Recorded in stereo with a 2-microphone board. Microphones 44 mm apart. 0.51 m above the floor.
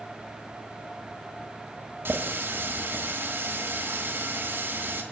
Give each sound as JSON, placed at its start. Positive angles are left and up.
{"t": 2.0, "sound": "a running tap", "side_deg": -60, "distance_m": 1.7}